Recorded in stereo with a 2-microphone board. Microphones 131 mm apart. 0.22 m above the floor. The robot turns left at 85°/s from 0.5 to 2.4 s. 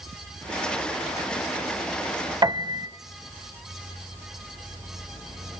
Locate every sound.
2.4 s a piano: 30° right (ahead or behind), 0.6 m